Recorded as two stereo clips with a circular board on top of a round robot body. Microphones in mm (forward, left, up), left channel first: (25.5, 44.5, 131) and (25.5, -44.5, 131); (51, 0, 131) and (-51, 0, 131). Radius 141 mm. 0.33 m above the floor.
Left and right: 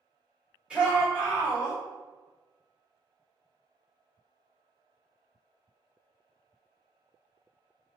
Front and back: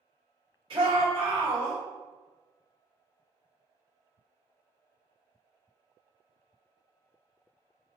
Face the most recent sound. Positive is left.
turn(degrees=-170)